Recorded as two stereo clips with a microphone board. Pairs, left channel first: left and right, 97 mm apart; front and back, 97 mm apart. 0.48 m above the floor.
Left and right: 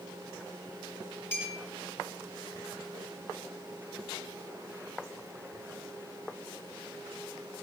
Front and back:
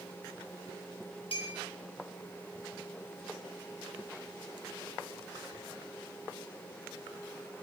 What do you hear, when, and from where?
1.3 s a clink: 25° left, 4 m